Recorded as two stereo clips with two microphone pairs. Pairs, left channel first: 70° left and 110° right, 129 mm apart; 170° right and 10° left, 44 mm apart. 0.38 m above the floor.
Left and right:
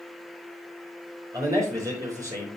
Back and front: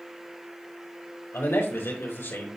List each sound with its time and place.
1.3 s a man speaking: 175° right, 5 m